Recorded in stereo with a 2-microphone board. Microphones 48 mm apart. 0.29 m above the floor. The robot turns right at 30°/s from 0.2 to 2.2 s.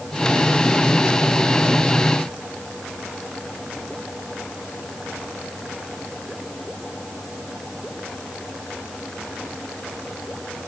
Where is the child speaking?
No child speaking in this recording.